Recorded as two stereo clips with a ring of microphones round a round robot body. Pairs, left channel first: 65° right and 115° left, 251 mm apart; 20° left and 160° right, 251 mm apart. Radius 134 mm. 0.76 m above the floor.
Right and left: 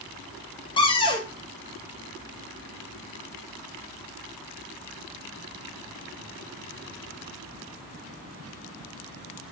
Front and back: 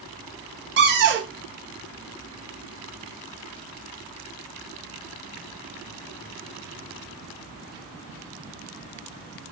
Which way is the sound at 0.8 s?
135° right.